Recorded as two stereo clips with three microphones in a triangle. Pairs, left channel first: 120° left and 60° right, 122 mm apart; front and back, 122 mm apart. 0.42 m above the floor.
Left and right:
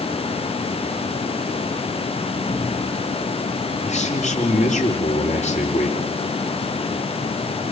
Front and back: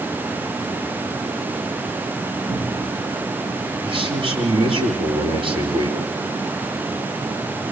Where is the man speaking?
140° left, 8 m.